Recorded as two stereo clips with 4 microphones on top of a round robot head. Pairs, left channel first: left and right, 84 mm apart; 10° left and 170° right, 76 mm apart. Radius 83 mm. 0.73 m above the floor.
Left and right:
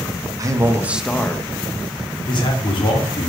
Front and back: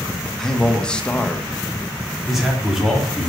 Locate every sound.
0.4 s a man speaking: 65° right, 1.1 m; by 1.5 s 80° left, 0.9 m
2.3 s a man speaking: 105° left, 2 m